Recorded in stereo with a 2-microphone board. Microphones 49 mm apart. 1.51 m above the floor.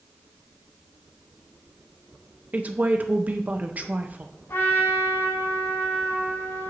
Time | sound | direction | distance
2.5 | a woman speaking | 35° right (ahead or behind) | 0.7 m
4.5 | a trumpet | 90° left | 3 m